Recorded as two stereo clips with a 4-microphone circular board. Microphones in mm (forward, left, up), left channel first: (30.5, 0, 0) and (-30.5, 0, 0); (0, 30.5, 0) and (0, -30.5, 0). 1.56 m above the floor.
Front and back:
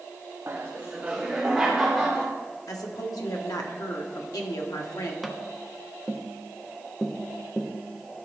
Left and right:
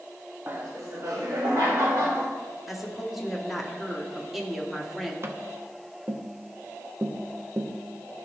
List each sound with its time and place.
0.5 s laughter: 140° right, 0.9 m; by 2.3 s 90° right, 2.5 m
2.7 s a woman speaking: 5° right, 1.3 m
5.2 s tapping: 85° right, 0.7 m